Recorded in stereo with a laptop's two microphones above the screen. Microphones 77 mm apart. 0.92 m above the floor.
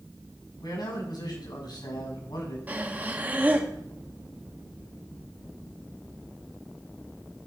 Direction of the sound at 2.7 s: 25° right (ahead or behind).